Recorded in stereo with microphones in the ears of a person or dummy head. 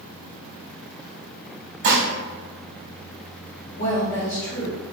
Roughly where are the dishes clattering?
Right.